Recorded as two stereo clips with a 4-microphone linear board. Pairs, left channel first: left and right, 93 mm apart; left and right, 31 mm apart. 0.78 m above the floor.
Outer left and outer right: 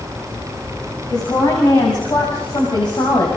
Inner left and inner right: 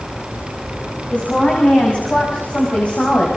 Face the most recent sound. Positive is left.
turn(degrees=55)  # may be behind; listen again after turning